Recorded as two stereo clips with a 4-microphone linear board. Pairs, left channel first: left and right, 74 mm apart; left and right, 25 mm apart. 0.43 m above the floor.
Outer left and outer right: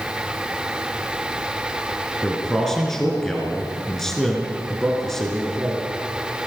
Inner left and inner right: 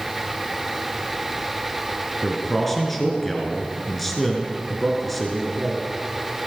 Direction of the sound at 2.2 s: 5° left (ahead or behind).